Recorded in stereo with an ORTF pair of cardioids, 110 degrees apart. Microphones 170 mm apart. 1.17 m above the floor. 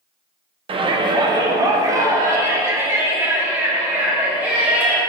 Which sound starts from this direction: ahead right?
A shout, at 0.7 s.